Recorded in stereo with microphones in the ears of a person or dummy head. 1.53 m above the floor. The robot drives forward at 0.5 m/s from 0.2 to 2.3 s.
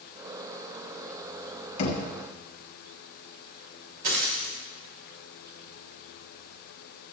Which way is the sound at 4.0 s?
60° right (ahead or behind).